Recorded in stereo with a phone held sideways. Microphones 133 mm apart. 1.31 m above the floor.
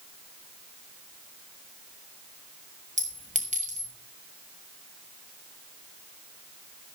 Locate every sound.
3.0 s a clink: 60° right (ahead or behind), 5 m